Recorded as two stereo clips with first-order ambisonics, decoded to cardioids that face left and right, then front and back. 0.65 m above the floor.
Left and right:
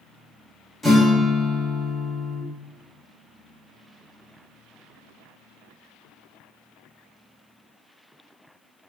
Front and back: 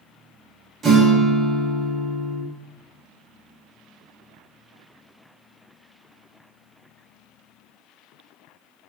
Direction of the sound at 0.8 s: 150° left.